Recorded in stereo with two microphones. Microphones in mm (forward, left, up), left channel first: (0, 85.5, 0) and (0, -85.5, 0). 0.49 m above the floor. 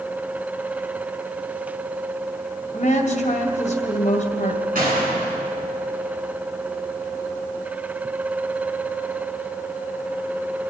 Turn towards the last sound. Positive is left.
turn(degrees=-55)  # may be behind; listen again after turning